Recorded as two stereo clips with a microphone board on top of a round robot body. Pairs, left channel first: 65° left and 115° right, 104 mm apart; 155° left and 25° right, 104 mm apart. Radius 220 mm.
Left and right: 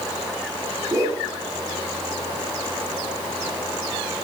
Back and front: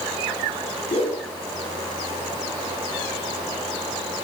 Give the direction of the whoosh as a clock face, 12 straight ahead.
6 o'clock.